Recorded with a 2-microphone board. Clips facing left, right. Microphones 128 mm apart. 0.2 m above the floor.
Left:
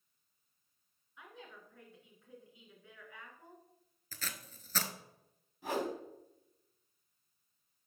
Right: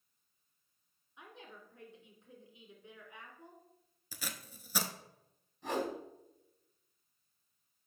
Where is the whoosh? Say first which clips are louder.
Even; 10° left (ahead or behind), 1.7 m.